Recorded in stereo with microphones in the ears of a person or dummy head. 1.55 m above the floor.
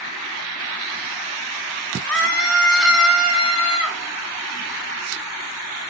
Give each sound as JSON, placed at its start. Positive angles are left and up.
{"t": 2.0, "sound": "a scream", "side_deg": 10, "distance_m": 3.0}